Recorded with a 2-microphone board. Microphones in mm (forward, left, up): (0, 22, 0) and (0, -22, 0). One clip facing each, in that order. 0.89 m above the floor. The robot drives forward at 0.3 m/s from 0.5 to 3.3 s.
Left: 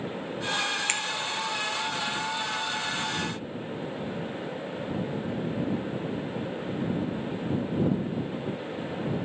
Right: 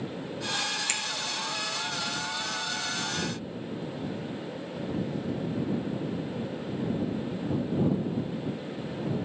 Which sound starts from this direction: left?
A finger snap, at 0.9 s.